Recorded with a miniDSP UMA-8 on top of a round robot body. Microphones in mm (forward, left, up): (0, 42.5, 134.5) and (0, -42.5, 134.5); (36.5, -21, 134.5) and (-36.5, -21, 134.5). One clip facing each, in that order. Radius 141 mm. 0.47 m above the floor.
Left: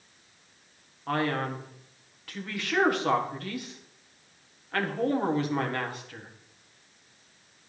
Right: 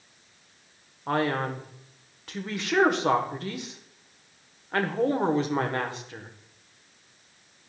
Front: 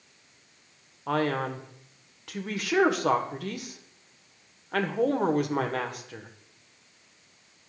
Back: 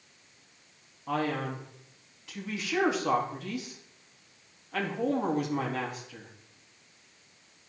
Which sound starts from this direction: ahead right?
A man speaking, at 1.1 s.